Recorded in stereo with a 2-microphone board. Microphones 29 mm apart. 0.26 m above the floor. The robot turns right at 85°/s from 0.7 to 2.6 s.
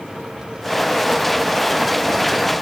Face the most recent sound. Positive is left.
No sound to turn to.